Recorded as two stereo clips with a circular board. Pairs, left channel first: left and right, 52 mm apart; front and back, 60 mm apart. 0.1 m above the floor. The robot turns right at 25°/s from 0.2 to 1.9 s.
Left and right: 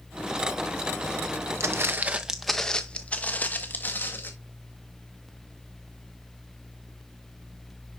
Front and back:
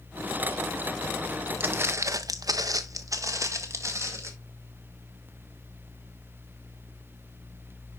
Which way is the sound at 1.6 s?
125° right.